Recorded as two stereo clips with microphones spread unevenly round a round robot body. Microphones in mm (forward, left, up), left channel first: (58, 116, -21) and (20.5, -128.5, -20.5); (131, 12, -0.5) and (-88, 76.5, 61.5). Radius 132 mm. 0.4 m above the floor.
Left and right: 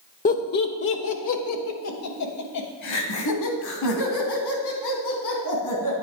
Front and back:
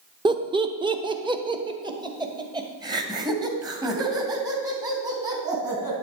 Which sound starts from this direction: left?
Laughter, at 0.2 s.